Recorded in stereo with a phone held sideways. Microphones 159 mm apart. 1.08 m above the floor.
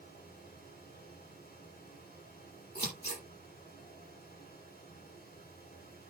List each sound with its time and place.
0.0 s a fan: 80° left, 6 m
2.8 s scissors: 85° left, 6.5 m